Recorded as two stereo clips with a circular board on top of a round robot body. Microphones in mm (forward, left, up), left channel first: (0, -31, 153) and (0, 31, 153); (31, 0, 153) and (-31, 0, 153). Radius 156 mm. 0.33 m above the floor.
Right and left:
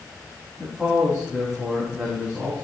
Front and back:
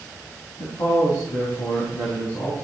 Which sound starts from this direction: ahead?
A man speaking, at 0.6 s.